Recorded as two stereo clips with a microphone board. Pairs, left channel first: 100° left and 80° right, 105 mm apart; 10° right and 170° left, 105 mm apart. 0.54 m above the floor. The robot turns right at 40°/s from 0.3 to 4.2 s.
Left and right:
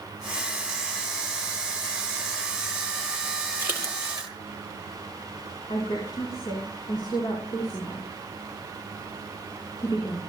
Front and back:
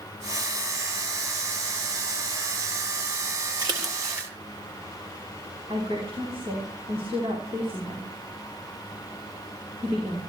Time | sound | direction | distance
3.6 | a splash | 150° right | 3 m
5.7 | a woman speaking | 145° left | 4.5 m